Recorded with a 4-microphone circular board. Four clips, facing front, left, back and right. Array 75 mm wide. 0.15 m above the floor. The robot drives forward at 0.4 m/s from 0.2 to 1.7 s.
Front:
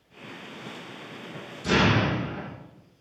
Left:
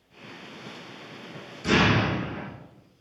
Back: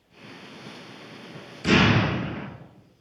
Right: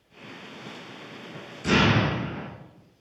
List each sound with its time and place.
1.6 s an explosion: 175° right, 3 m